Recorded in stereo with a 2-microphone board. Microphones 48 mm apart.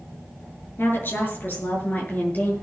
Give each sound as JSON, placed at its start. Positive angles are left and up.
{"t": 0.8, "sound": "a woman speaking", "side_deg": 50, "distance_m": 6.5}